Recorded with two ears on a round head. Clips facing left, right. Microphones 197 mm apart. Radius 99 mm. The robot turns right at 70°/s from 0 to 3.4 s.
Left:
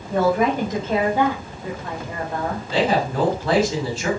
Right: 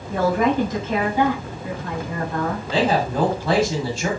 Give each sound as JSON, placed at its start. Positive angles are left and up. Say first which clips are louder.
{"t": 0.1, "sound": "a woman speaking", "louder": "left 1 dB", "azimuth_deg": -20, "distance_m": 1.9}
{"t": 2.7, "sound": "a man speaking", "louder": "even", "azimuth_deg": -75, "distance_m": 1.6}